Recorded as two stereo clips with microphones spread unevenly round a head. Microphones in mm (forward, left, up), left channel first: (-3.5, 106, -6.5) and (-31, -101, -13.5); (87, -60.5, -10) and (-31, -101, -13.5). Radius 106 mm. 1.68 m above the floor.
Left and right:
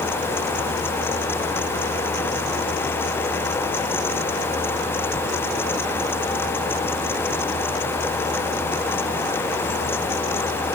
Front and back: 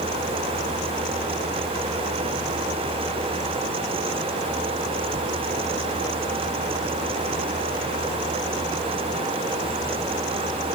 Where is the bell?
No bell in this recording.